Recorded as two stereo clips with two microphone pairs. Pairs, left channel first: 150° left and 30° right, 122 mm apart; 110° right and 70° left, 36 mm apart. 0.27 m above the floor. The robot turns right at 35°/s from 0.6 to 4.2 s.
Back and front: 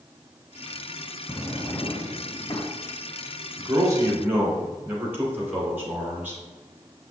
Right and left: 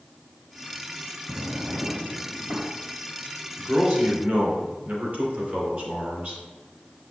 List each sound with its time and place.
1.3 s a drawer: 70° left, 1.0 m; by 2.6 s 120° left, 1.0 m
3.6 s a man speaking: 25° left, 2.5 m; by 6.4 s 45° left, 2.5 m